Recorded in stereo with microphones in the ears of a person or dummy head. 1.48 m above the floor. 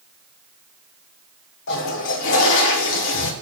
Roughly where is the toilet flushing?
Left.